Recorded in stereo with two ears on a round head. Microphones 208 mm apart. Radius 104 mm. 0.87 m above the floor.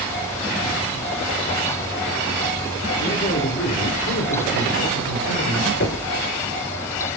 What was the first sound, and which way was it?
A man speaking, 40° left (ahead or behind).